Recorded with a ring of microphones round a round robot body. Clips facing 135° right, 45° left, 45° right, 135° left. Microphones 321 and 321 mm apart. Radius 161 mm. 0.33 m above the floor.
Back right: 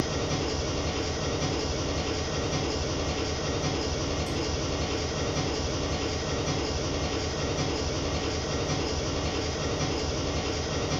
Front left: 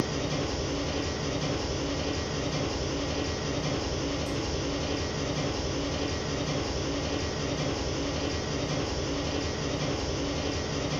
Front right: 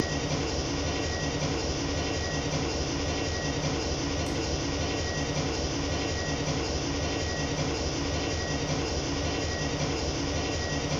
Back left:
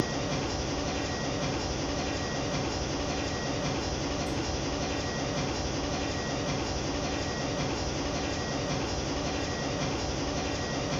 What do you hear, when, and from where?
0.0 s an engine running: 25° right, 1.2 m